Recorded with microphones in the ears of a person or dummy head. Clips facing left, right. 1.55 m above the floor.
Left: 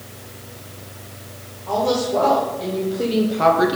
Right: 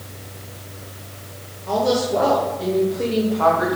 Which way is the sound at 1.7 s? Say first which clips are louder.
Right 1 dB; 30° right (ahead or behind).